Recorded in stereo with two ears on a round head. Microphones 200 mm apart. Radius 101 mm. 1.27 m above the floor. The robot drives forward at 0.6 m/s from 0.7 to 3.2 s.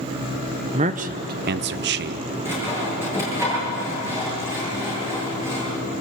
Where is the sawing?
10° right (ahead or behind), 8.5 m.